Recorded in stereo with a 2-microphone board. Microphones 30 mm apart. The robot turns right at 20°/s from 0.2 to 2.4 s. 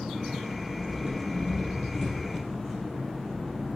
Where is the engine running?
45° right, 1.9 m; by 3.8 s straight ahead, 1.9 m.